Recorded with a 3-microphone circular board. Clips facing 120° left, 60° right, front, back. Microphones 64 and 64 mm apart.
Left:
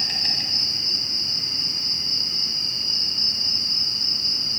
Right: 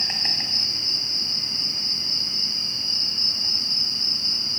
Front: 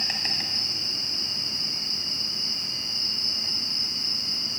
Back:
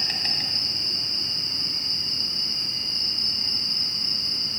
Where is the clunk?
No clunk in this recording.